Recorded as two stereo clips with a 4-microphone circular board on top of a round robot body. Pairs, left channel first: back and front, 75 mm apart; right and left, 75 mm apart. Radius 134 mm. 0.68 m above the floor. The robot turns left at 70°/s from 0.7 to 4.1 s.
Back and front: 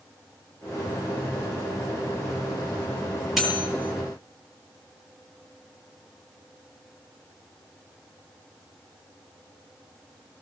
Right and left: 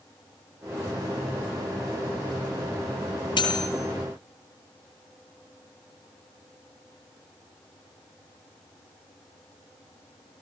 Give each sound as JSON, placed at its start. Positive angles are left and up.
{"t": 3.4, "sound": "cutlery clinking", "azimuth_deg": -85, "distance_m": 9.0}